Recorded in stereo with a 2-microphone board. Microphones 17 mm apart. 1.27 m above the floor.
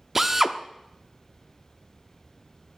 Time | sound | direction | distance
0.1 | a drill | 15° right (ahead or behind) | 0.9 m